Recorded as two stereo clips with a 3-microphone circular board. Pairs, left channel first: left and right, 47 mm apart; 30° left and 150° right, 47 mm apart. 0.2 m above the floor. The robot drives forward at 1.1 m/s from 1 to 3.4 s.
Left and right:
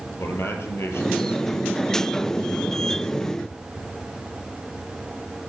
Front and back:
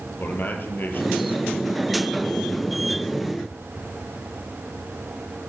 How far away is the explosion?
I don't hear an explosion.